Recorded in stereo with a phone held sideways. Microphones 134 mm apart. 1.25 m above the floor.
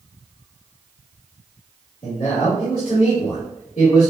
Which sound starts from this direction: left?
A man speaking, at 2.0 s.